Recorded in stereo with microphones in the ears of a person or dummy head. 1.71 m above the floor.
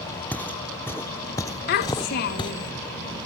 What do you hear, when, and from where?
0.3 s footsteps: 10° left (ahead or behind); by 2.5 s 25° left (ahead or behind)
1.7 s a child speaking: 40° left (ahead or behind)